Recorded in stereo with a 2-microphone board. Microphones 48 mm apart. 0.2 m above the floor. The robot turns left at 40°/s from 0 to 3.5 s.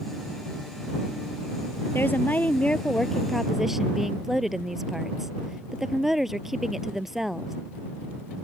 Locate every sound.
1.9 s a woman speaking: 60° left; by 7.5 s 5° right